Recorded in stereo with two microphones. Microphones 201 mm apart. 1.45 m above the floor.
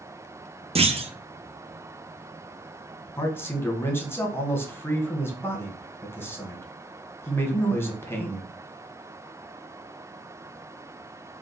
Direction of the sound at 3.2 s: 10° left (ahead or behind).